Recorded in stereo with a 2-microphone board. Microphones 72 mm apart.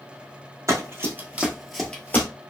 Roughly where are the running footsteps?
Right.